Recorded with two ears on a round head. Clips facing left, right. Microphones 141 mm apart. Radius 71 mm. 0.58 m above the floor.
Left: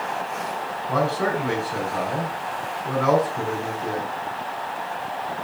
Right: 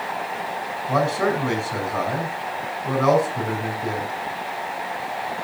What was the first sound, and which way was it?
A man speaking, 55° right (ahead or behind).